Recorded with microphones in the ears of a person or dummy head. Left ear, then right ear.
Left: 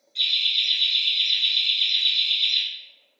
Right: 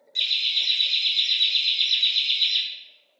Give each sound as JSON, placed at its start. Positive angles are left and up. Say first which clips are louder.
{"t": 0.1, "sound": "laughter", "louder": "left 1 dB", "side_deg": -50, "distance_m": 1.1}